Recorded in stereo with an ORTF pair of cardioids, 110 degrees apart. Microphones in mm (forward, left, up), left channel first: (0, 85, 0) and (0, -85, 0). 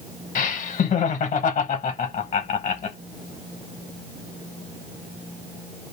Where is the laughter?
45° left, 0.8 m.